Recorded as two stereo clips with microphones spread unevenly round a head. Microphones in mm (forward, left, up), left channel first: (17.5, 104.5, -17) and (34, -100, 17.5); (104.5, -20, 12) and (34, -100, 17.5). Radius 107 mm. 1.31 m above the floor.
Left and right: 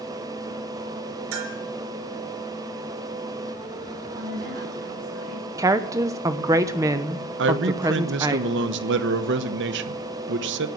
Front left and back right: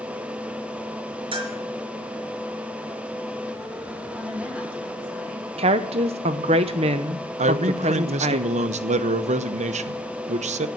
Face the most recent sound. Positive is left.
turn(degrees=-125)